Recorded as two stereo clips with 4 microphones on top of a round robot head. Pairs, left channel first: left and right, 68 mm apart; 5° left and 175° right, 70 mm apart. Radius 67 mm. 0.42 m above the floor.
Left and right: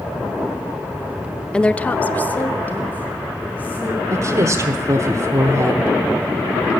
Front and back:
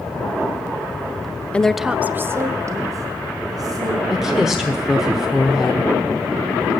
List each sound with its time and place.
1.5 s a woman speaking: 40° left, 0.7 m; by 4.0 s 160° left, 2.5 m
4.1 s a woman speaking: 95° right, 1.3 m